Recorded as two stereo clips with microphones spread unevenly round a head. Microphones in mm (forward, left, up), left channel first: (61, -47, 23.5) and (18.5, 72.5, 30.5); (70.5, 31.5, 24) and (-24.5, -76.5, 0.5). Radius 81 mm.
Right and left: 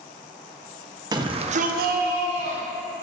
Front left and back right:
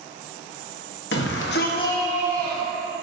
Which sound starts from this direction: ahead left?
A shout, at 1.1 s.